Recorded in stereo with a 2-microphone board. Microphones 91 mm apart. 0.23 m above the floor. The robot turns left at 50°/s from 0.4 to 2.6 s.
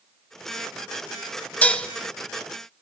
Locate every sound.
1.6 s dishes clattering: 20° left (ahead or behind), 1.0 m; by 1.9 s 10° left (ahead or behind), 1.0 m